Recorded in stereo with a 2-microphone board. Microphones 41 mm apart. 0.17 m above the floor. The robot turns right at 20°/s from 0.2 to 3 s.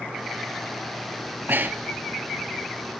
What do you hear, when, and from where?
1.5 s breathing: 55° right (ahead or behind), 0.5 m; by 2.0 s 65° right (ahead or behind), 0.5 m